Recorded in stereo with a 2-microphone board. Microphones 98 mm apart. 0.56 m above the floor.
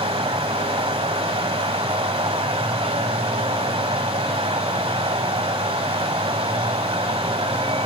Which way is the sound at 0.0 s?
80° right.